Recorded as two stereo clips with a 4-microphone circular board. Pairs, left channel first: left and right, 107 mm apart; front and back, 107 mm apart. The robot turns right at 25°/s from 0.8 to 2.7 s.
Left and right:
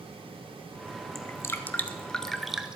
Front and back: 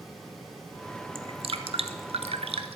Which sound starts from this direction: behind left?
Dripping, at 1.1 s.